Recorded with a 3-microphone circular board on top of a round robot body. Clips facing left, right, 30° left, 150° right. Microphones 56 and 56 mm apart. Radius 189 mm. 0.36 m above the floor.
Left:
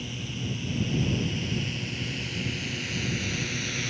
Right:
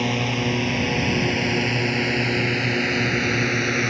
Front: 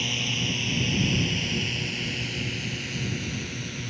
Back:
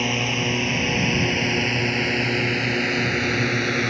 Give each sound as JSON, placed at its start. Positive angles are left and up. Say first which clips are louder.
{"t": 0.0, "sound": "a drone", "louder": "right 13 dB, back 6 dB", "azimuth_deg": -105}